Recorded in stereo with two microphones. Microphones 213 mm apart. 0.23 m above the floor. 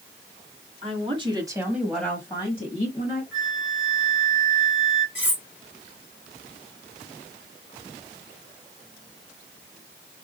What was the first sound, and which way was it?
A woman speaking, 30° right (ahead or behind).